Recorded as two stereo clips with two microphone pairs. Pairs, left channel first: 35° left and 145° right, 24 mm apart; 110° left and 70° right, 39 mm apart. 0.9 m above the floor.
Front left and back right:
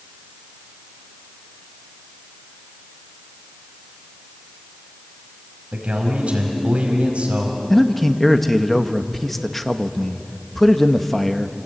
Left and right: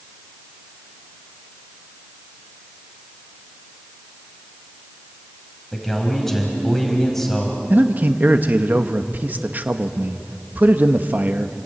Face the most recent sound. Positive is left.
turn(degrees=-45)